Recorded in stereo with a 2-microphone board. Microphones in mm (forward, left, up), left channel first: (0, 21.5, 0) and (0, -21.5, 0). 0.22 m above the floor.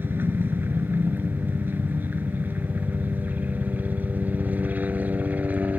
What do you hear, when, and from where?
0.0 s a helicopter: 55° right (ahead or behind); by 5.8 s 40° right (ahead or behind)